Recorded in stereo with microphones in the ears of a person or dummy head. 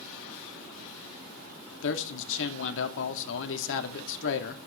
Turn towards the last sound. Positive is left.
turn(degrees=70)  # may be behind; listen again after turning